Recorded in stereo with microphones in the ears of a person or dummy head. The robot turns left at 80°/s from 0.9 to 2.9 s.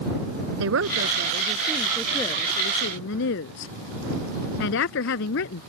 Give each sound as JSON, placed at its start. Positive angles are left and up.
{"t": 0.6, "sound": "a woman speaking", "azimuth_deg": -100}